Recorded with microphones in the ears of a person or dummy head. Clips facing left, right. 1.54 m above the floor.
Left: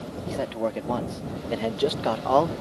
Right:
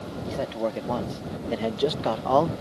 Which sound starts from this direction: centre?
A man speaking, at 0.3 s.